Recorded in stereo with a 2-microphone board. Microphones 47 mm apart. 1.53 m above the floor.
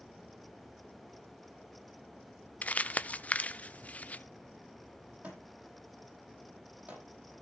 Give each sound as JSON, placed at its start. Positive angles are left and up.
{"t": 2.6, "sound": "crumpling", "side_deg": 30, "distance_m": 0.7}
{"t": 5.2, "sound": "a thud", "side_deg": -35, "distance_m": 7.5}